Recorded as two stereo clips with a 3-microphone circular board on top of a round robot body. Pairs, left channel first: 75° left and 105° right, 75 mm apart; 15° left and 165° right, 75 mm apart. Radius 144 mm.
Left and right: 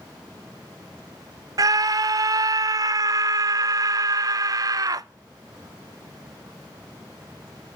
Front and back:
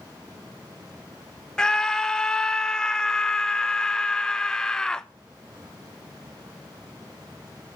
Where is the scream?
65° right, 0.7 m.